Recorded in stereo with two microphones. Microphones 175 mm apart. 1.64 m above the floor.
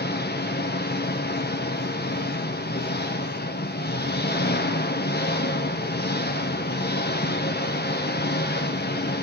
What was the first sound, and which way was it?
An engine running, 75° left (ahead or behind).